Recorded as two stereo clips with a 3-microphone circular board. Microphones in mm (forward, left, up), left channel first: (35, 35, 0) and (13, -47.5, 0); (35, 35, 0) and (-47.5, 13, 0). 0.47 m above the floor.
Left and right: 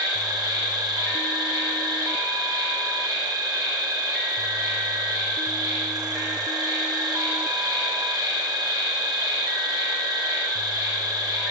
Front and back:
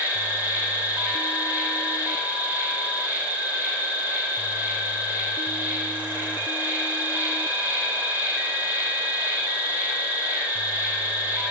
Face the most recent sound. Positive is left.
turn(degrees=-105)